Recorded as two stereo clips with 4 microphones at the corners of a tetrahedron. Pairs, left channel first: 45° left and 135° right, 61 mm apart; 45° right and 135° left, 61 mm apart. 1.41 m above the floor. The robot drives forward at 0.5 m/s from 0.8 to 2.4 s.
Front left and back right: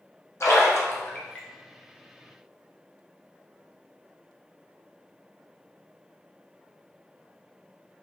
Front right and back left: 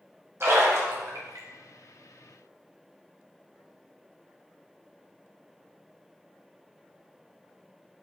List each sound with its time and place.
0.4 s a splash: 85° left, 0.6 m; by 1.5 s 115° left, 0.7 m